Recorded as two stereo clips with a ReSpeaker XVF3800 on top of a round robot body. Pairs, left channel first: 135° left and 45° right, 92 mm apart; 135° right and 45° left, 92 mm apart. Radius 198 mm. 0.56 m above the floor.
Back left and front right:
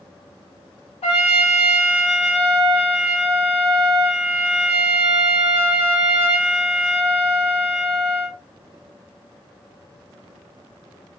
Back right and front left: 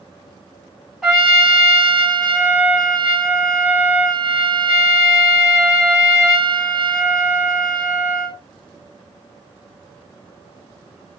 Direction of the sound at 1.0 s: 130° left.